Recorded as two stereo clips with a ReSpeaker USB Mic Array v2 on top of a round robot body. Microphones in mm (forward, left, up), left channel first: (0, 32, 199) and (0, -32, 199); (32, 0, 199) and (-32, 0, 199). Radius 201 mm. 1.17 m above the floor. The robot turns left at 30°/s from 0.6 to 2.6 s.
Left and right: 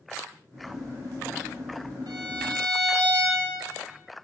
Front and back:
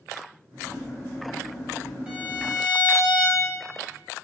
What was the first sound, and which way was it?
A violin, 100° right.